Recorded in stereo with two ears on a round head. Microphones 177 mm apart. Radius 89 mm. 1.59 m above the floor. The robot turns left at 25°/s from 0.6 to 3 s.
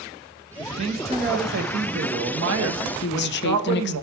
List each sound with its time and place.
0.6 s a man speaking: 25° right, 1.1 m; by 4.0 s 85° right, 1.1 m
3.0 s a woman speaking: 60° left (ahead or behind), 0.5 m